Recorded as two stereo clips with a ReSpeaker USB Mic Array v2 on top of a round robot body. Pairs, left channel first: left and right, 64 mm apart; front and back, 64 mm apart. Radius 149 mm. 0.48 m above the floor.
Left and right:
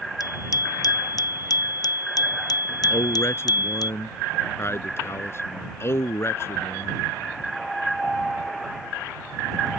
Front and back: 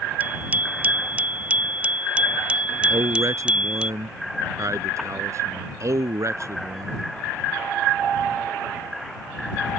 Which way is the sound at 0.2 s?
115° left.